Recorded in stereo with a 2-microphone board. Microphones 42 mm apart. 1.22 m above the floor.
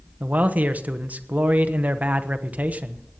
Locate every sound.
0.2 s a man speaking: 40° right (ahead or behind), 1.1 m